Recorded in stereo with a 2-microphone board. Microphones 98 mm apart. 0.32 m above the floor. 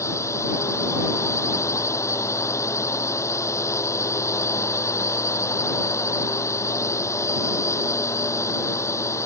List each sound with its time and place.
0.0 s a drone: 30° left (ahead or behind)